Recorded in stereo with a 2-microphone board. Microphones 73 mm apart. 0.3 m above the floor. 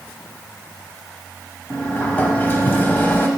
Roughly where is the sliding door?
Left.